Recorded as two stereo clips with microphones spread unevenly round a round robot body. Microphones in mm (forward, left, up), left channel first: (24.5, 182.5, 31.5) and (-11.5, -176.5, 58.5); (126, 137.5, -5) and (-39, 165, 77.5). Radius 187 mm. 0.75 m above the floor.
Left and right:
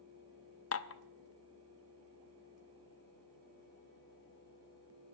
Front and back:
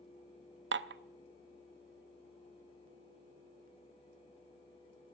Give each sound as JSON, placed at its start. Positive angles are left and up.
{"t": 0.7, "sound": "dishes clattering", "azimuth_deg": 135, "distance_m": 0.7}